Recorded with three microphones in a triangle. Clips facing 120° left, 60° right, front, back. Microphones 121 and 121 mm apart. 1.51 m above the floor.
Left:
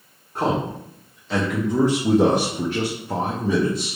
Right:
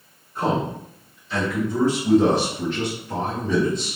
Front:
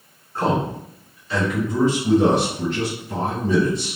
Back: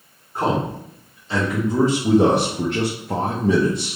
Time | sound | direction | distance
0.3 | a man speaking | 105° left | 1.4 m